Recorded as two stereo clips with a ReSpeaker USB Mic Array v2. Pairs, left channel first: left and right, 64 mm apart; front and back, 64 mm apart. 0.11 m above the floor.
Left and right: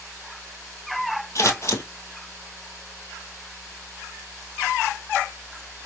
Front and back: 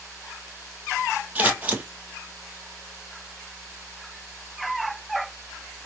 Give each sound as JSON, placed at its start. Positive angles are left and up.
{"t": 1.4, "sound": "scissors", "azimuth_deg": 120, "distance_m": 1.6}